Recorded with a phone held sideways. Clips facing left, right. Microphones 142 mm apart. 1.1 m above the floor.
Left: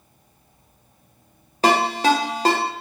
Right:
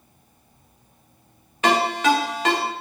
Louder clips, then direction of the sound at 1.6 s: Left 1 dB; 35° left (ahead or behind).